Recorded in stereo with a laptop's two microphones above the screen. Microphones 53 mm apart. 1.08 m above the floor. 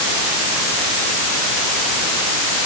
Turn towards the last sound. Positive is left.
No sound to turn to.